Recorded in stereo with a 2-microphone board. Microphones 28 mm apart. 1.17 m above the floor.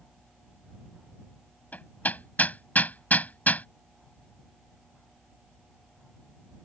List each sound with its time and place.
1.7 s hammering: 70° left (ahead or behind)